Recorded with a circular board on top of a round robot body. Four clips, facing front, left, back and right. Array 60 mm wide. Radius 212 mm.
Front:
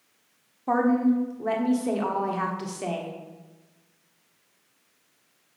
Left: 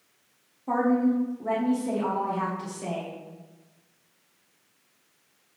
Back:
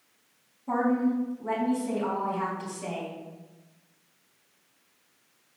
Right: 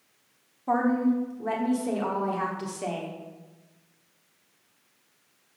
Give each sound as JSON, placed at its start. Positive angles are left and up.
{"t": 0.7, "sound": "a woman speaking", "azimuth_deg": -20, "distance_m": 1.6}